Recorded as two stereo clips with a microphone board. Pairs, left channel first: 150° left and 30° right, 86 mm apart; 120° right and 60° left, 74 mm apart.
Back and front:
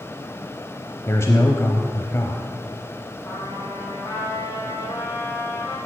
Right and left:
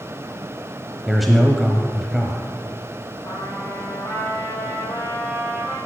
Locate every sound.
1.1 s a man speaking: 150° left, 1.1 m
3.2 s a trumpet: 165° right, 3.5 m